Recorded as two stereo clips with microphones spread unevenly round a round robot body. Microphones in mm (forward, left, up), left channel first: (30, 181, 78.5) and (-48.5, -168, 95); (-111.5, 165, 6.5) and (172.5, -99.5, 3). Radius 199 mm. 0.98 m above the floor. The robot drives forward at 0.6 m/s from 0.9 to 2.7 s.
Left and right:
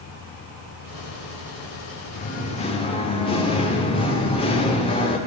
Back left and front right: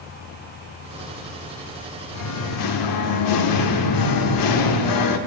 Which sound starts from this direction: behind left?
Singing, at 2.1 s.